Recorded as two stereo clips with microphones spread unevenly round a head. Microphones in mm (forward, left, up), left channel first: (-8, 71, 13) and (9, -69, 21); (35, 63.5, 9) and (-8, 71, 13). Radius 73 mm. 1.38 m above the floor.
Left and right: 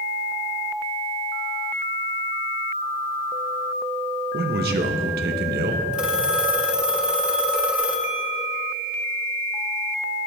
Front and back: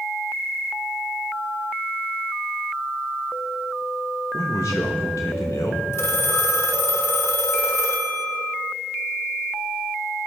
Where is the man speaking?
65° right, 1.1 m.